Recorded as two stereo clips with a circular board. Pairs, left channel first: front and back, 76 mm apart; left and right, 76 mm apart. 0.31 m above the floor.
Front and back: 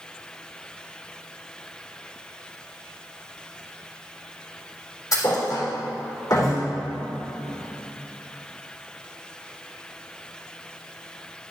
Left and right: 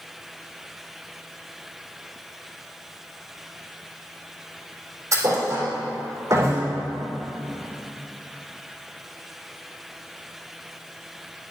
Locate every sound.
5.1 s a thud: 40° right, 3 m